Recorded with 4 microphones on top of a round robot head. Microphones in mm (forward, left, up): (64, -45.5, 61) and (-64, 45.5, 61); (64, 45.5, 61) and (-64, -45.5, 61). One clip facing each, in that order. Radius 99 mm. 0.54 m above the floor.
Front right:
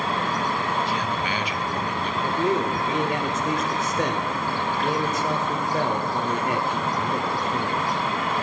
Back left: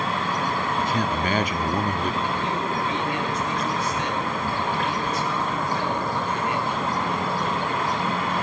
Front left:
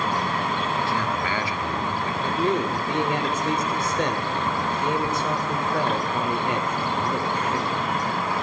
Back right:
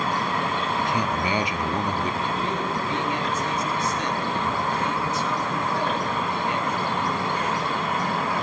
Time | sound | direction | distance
0.8 | a man speaking | 150° left | 1.0 m
2.2 | a man speaking | 5° left | 1.7 m